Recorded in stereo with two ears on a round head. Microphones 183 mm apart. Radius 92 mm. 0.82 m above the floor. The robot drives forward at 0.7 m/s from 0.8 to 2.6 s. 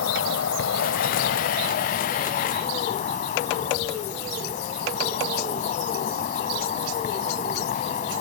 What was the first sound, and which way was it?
An insect, 70° left (ahead or behind).